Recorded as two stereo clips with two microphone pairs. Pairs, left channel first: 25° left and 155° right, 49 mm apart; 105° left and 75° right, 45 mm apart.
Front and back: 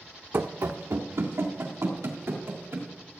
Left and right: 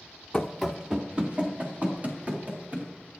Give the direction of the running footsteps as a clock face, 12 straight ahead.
6 o'clock.